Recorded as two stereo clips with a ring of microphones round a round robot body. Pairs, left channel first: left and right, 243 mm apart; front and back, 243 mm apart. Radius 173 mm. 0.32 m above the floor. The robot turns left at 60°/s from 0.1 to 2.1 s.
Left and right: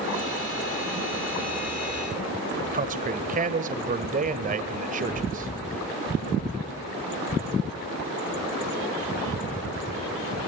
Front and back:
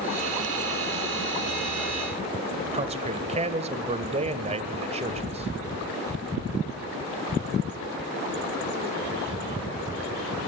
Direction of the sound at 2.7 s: 130° right.